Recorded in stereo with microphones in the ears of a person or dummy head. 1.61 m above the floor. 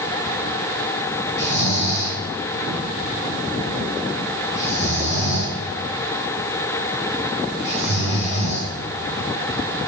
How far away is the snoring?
About 5 m.